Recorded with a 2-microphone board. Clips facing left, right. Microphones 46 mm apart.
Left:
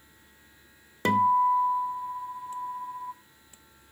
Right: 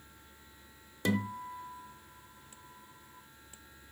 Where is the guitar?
45° left (ahead or behind), 0.9 m.